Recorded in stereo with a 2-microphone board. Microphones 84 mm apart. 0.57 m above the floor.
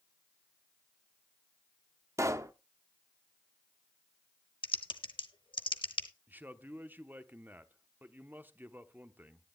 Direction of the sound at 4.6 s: 85° left.